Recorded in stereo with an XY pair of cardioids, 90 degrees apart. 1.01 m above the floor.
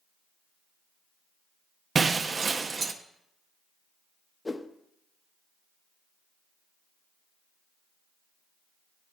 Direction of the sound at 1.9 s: 45° right.